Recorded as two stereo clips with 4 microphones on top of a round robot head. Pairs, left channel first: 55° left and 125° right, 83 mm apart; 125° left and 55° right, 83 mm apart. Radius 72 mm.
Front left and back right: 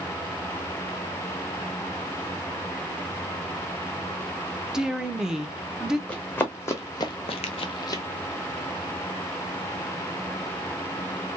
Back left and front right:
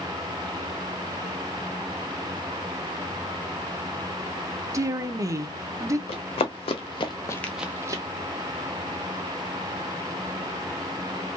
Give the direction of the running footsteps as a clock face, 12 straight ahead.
8 o'clock.